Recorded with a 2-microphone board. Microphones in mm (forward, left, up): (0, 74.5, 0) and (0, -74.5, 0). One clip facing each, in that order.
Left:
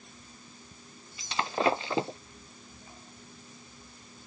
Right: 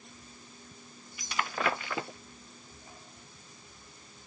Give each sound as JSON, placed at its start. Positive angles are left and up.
{"t": 1.2, "sound": "breaking glass", "side_deg": 25}